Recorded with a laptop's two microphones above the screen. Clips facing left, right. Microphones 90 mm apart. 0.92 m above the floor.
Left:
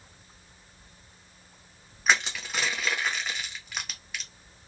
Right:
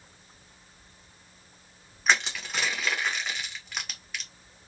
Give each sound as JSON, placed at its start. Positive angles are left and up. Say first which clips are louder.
{"t": 2.1, "sound": "crushing", "louder": "even", "side_deg": 0, "distance_m": 0.7}